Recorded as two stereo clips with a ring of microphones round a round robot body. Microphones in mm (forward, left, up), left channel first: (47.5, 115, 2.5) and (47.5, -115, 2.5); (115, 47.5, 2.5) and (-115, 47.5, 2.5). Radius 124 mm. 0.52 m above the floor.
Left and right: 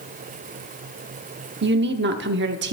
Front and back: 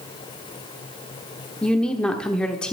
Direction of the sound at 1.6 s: 85° right.